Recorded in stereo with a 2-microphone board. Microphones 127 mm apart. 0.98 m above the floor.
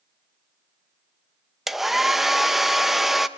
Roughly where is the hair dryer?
Centre.